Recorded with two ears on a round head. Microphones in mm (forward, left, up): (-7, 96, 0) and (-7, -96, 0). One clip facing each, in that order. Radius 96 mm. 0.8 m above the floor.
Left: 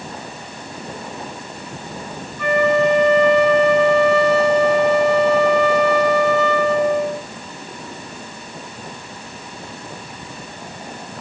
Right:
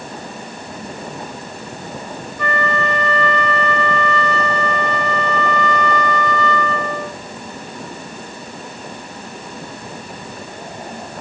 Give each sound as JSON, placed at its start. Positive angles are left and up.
{"t": 2.4, "sound": "a flute", "side_deg": -60, "distance_m": 1.9}